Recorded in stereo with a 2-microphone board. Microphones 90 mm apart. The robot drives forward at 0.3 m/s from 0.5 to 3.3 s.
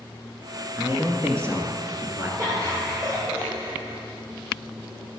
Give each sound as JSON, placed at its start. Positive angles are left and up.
{"t": 0.8, "sound": "a man speaking", "side_deg": -30, "distance_m": 1.3}
{"t": 2.4, "sound": "laughter", "side_deg": -40, "distance_m": 2.5}